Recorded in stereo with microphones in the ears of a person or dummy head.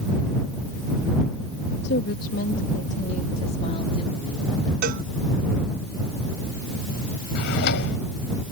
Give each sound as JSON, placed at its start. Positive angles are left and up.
{"t": 1.8, "sound": "a woman speaking", "side_deg": 60}
{"t": 4.8, "sound": "a cowbell", "side_deg": -55}
{"t": 7.3, "sound": "a drawer", "side_deg": 60}